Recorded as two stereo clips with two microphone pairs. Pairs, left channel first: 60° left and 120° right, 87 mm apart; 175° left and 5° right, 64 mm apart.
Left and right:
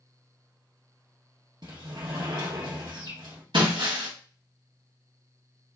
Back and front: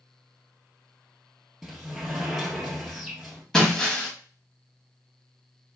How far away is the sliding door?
About 1.6 m.